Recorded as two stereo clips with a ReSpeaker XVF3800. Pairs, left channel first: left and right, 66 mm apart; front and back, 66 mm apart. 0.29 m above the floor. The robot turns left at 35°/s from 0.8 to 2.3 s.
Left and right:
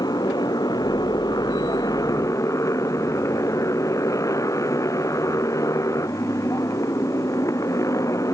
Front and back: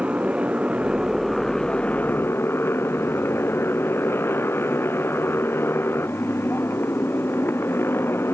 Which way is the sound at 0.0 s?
105° left.